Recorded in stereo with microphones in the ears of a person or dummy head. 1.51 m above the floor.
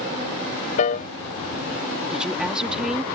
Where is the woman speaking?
5° right (ahead or behind).